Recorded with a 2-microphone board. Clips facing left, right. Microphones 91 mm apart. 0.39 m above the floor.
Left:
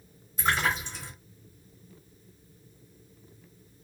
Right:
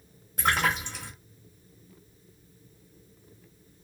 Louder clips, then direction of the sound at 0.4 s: Right 1 dB; 65° right (ahead or behind).